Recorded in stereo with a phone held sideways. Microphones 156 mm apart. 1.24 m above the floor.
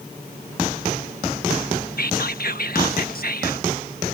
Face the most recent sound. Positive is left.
turn(degrees=70)  # may be behind; listen again after turning